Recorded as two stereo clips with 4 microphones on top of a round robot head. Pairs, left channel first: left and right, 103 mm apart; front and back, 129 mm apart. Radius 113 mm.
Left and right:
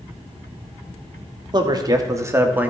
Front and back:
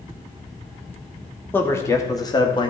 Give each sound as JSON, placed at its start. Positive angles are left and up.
{"t": 1.5, "sound": "a man speaking", "azimuth_deg": -70, "distance_m": 1.5}